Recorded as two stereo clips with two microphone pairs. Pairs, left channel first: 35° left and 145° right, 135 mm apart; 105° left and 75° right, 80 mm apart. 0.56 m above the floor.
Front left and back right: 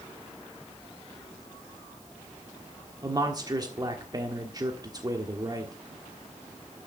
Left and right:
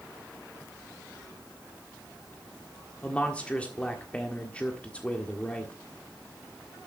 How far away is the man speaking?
About 1.4 m.